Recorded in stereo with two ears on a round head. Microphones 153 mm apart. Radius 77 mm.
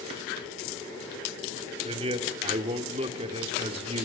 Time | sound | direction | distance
1.9 | a man speaking | 35° right (ahead or behind) | 2.5 m